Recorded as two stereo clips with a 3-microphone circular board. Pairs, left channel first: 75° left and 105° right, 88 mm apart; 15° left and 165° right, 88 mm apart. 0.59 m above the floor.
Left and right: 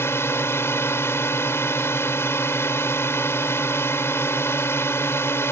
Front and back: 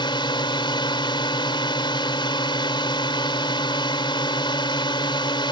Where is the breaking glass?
No breaking glass in this recording.